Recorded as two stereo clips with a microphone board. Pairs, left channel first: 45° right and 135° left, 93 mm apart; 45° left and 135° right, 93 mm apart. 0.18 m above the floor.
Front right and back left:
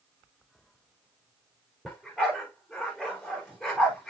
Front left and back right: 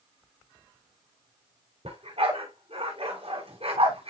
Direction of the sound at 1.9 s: 135° right.